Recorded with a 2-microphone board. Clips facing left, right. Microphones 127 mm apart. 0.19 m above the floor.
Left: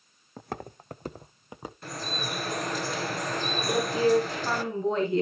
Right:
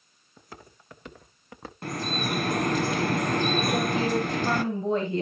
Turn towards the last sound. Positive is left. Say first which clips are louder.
# left 2 dB
turn(degrees=-20)  # may be behind; listen again after turning